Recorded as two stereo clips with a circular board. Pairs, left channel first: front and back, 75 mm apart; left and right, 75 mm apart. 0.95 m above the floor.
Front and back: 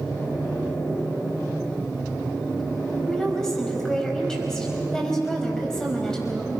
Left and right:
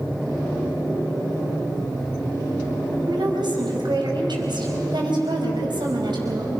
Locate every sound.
3.1 s a woman speaking: 80° right, 5 m